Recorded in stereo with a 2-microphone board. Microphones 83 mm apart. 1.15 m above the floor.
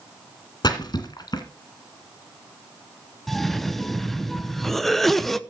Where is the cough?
5° left (ahead or behind), 0.8 m.